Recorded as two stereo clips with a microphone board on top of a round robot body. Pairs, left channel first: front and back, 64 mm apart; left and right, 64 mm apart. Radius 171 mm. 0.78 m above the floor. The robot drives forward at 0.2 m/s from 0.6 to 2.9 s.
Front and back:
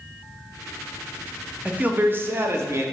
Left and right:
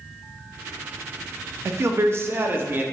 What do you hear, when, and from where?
1.6 s a man speaking: 120° right, 0.5 m; by 2.8 s 145° right, 0.6 m